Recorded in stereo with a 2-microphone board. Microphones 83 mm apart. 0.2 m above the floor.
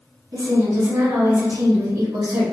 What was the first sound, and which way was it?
A woman speaking, 55° right (ahead or behind).